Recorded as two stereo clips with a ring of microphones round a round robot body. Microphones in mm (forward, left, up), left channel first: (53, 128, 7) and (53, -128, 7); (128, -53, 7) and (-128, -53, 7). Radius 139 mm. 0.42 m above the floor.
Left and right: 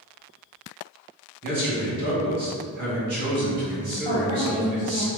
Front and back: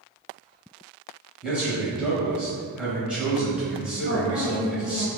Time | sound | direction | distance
1.4 | a man speaking | 95° right | 0.9 m
4.0 | a woman speaking | 50° left | 1.7 m